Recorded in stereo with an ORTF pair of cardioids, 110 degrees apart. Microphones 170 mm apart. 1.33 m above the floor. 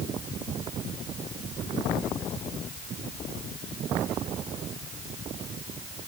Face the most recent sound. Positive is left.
No sound to turn to.